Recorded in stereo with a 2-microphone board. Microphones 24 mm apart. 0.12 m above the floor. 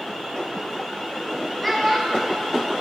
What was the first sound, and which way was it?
A child speaking, 10° left (ahead or behind).